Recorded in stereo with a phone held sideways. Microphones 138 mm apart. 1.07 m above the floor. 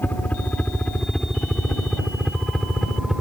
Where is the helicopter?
10° left (ahead or behind); by 3.2 s centre (ahead or behind).